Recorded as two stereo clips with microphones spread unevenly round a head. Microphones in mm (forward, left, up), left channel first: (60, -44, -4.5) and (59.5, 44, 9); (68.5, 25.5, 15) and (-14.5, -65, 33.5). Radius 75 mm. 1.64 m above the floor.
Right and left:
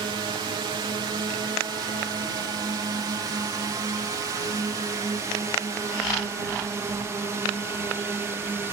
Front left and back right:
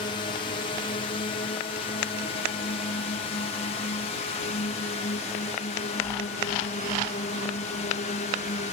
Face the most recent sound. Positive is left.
turn(degrees=30)